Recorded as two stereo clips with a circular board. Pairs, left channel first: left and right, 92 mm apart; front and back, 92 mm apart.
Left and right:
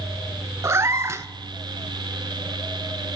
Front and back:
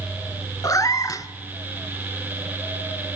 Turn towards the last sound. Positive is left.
turn(degrees=-40)